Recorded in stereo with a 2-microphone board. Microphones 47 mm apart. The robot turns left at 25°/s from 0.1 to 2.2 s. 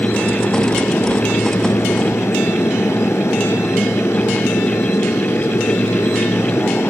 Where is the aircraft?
135° left; by 6.9 s 80° left.